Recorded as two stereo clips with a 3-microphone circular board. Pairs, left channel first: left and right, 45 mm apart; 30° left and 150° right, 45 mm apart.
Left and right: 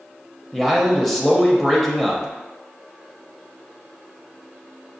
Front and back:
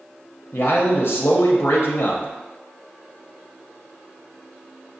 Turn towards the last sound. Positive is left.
turn(degrees=5)